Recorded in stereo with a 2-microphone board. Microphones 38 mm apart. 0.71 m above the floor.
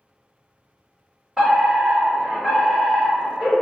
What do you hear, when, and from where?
1.4 s a fire alarm: 20° right (ahead or behind), 1.6 m